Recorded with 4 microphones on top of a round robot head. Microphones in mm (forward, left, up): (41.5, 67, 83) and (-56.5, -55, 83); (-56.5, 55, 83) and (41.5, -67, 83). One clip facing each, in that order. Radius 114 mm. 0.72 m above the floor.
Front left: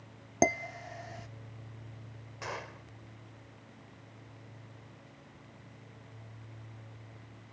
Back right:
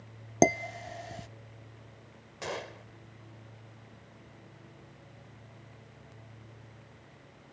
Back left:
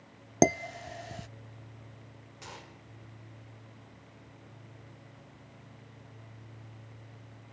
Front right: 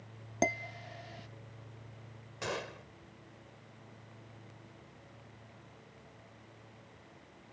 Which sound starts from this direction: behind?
Dishes clattering, at 0.4 s.